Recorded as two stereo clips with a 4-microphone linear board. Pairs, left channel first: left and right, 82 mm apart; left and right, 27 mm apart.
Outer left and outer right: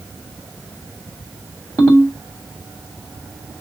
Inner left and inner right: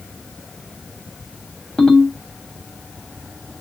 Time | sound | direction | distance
1.8 | a ringtone | 40° left (ahead or behind) | 1.8 m